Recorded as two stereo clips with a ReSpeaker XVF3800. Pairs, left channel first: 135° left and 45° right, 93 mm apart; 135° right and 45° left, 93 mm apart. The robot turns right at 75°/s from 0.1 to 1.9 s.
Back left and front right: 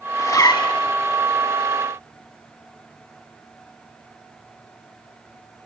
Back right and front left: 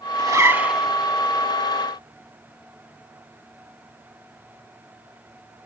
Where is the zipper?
85° left, 0.6 m; by 0.9 s 140° left, 0.6 m.